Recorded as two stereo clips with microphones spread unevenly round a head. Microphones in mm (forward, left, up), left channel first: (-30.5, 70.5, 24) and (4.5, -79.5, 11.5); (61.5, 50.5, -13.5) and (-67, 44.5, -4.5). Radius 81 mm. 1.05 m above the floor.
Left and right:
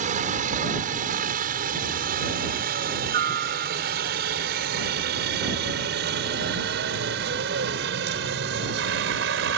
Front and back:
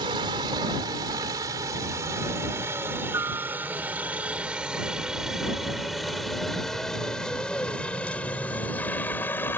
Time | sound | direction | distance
0.0 | a helicopter | 115° right | ?